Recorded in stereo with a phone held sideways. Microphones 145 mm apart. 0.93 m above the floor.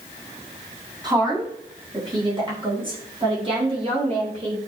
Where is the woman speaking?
25° right (ahead or behind), 7 m; by 4.6 s 40° right (ahead or behind), 8.5 m.